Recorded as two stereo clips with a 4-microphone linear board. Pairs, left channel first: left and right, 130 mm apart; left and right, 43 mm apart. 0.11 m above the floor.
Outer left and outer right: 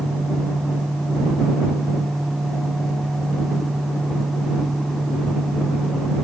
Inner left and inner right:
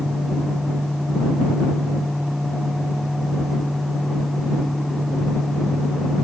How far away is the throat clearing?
I don't hear throat clearing.